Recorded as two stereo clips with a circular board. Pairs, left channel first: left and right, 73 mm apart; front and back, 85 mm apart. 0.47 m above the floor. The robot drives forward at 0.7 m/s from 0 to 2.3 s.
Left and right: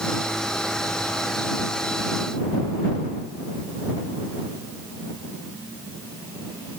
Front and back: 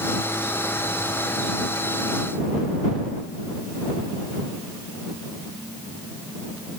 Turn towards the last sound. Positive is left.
No sound to turn to.